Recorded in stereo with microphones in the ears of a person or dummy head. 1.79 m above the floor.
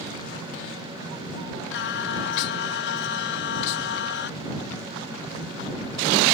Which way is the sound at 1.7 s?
65° left (ahead or behind).